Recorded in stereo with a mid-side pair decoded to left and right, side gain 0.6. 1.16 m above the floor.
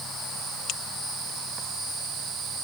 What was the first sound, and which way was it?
Only background noise.